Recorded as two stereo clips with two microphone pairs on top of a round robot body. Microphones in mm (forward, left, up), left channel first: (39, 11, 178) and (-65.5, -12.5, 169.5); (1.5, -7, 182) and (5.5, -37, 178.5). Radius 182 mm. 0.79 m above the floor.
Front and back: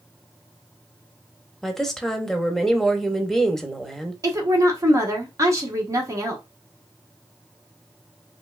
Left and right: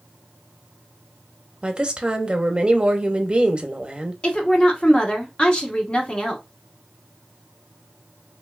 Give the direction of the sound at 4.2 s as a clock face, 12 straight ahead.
7 o'clock.